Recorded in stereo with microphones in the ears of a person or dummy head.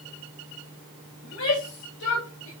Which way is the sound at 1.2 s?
85° left.